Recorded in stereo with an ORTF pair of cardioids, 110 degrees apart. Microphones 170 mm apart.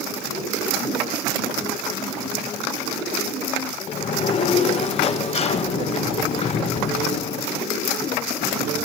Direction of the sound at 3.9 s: 40° left.